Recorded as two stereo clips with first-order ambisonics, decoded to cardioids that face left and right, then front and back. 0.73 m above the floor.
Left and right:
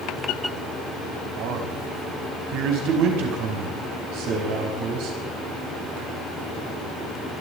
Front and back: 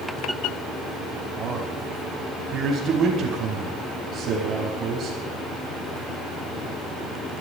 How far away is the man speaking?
About 4 m.